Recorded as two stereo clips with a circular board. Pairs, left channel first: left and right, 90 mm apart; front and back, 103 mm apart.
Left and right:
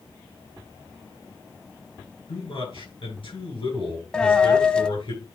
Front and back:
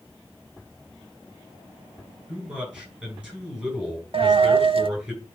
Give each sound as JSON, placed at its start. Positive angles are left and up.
{"t": 2.3, "sound": "a man speaking", "azimuth_deg": 100, "distance_m": 6.5}
{"t": 4.1, "sound": "a dropped coin", "azimuth_deg": 165, "distance_m": 0.7}